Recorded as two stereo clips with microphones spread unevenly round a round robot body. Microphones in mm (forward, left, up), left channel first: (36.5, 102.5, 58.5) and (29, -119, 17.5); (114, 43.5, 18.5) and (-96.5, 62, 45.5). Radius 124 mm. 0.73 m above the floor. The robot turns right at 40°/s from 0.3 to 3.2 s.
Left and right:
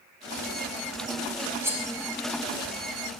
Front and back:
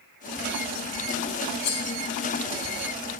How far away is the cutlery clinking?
About 0.6 m.